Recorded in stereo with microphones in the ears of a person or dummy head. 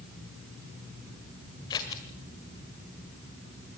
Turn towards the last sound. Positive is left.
turn(degrees=15)  # may be behind; listen again after turning